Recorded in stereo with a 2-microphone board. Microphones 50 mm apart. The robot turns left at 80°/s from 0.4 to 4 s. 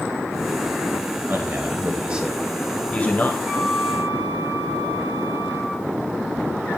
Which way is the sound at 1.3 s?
85° right.